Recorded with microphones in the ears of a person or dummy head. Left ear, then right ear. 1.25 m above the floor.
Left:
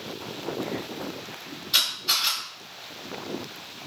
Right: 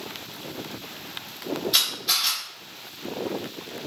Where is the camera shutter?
5° right (ahead or behind), 1.3 m.